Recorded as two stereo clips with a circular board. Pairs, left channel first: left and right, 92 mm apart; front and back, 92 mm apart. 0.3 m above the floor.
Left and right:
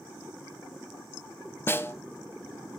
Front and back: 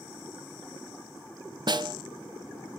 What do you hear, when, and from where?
1.7 s a snare drum: 150° left, 0.6 m